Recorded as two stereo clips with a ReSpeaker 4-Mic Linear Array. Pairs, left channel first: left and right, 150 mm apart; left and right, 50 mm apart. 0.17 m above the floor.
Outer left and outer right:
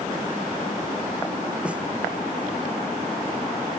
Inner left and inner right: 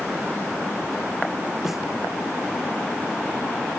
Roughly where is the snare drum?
Centre.